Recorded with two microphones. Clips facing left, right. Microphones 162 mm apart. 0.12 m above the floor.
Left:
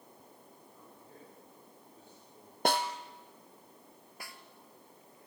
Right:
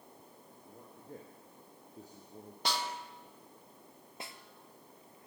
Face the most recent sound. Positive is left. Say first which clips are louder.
# right 3 dB
turn(degrees=-25)  # may be behind; listen again after turning